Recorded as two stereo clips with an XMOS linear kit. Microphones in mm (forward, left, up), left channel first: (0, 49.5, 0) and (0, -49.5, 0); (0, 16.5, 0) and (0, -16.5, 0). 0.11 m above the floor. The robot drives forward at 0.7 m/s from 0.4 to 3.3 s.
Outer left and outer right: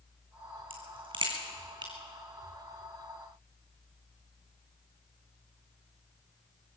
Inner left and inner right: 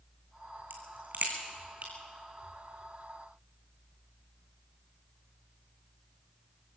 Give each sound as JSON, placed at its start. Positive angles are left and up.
{"t": 0.7, "sound": "a crack", "side_deg": -60, "distance_m": 2.5}